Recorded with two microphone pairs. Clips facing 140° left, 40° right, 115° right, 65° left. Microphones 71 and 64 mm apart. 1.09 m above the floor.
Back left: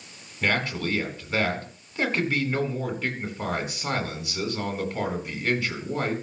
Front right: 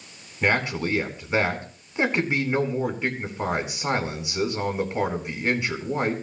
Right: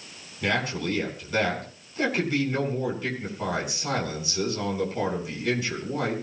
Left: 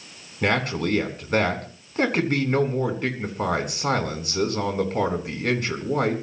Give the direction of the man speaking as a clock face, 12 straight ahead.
11 o'clock.